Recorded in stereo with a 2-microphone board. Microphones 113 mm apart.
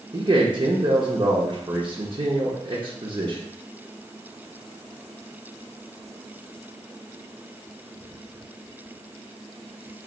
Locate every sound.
0.1 s a man speaking: 45° right (ahead or behind), 0.8 m